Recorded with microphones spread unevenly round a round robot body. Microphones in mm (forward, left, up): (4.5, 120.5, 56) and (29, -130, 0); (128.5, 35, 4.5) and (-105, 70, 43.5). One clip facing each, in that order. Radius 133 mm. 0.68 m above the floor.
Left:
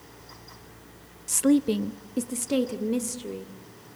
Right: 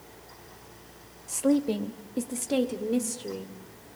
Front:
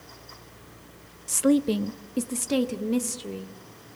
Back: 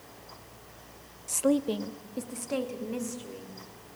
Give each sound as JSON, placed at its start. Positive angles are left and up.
{"t": 1.3, "sound": "a woman speaking", "azimuth_deg": 40, "distance_m": 0.6}